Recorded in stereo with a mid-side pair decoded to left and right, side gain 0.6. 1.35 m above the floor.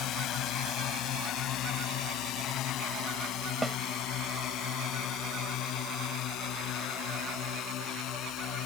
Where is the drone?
60° left; by 8.7 s 65° left.